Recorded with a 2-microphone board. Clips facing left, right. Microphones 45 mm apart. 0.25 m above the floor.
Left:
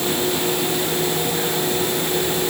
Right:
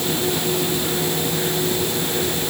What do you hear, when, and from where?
Only background noise.